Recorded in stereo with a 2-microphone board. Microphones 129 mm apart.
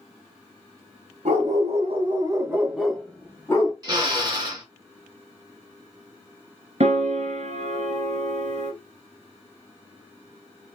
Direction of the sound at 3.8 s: 30° right (ahead or behind).